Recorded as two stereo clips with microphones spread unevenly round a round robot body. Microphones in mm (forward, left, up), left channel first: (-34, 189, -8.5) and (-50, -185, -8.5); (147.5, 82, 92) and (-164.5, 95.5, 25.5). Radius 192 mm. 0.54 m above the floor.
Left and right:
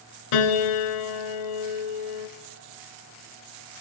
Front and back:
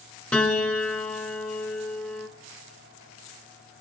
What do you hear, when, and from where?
0.3 s a piano: 80° left, 2 m